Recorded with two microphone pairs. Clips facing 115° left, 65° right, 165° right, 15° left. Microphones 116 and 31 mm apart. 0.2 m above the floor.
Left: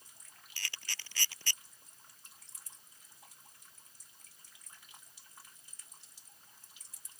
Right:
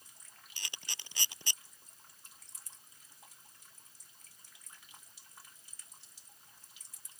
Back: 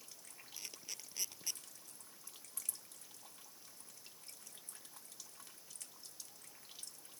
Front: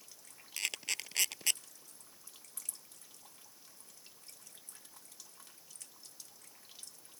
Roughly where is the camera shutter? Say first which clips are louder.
Left 2 dB, front 14 dB; ahead.